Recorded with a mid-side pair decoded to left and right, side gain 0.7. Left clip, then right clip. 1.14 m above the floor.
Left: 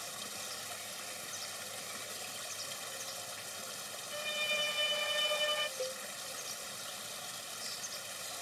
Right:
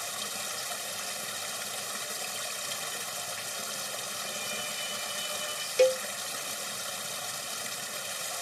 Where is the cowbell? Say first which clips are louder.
Right 16 dB; 65° right.